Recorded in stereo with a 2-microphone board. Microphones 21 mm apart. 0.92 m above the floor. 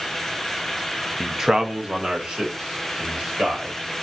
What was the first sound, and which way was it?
A man speaking, 5° right (ahead or behind).